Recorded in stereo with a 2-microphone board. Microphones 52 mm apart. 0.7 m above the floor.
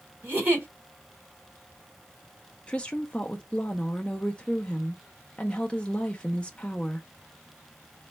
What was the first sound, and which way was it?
A giggle, 30° right (ahead or behind).